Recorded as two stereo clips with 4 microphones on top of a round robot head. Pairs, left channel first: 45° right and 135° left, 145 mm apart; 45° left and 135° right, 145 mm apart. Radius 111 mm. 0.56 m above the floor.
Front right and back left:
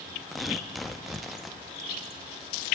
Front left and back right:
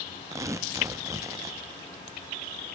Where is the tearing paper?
135° right, 0.6 m.